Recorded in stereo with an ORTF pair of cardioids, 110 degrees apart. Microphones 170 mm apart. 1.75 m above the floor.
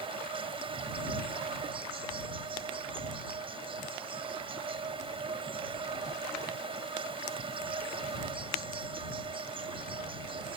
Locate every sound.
0.0 s an insect: 30° right